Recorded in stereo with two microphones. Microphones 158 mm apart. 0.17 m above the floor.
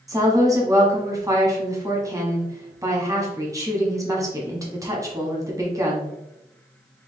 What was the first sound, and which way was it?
A woman speaking, 20° right (ahead or behind).